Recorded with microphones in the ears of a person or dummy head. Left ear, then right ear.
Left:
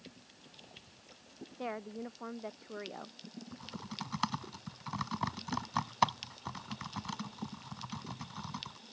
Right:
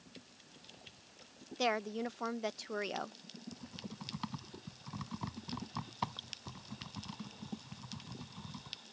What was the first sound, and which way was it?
A woman speaking, 80° right.